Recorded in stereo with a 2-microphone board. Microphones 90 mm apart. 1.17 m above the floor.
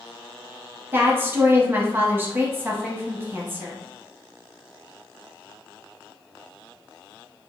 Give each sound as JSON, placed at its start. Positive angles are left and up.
{"t": 0.9, "sound": "a woman speaking", "side_deg": -20, "distance_m": 0.8}